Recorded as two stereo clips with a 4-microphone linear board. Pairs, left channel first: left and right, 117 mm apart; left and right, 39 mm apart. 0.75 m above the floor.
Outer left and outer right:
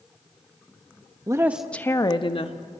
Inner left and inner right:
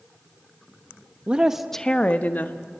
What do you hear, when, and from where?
1.3 s a woman speaking: 30° right (ahead or behind), 0.9 m; by 2.6 s 55° left (ahead or behind), 1.5 m